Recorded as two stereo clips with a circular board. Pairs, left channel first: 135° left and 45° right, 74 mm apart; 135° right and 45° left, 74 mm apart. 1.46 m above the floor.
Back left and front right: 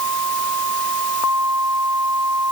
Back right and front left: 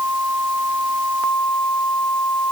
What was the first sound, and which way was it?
Only background noise.